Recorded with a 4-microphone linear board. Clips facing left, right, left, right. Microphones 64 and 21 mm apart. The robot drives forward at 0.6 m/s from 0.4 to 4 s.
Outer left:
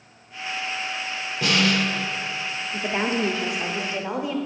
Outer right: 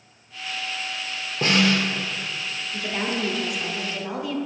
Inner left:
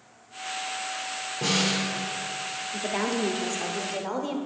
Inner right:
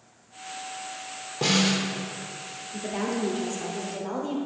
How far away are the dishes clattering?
No dishes clattering in this recording.